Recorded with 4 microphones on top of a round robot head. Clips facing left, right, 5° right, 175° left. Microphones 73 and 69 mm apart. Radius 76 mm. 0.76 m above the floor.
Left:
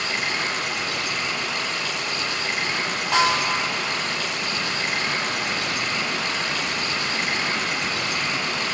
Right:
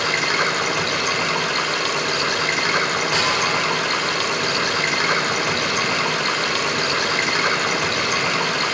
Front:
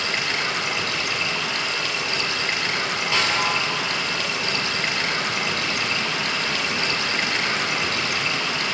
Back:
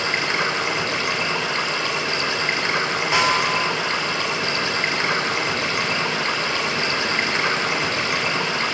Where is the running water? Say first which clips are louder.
Right 6 dB, back 3 dB; 115° right, 1.9 m.